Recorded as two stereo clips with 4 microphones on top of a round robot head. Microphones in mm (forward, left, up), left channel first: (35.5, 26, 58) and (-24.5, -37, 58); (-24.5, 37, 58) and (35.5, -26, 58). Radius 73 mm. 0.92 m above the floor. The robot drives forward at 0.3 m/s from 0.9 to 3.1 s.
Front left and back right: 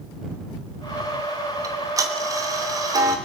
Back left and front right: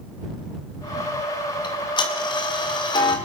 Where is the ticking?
170° left, 1.8 m; by 3.2 s 175° left, 2 m.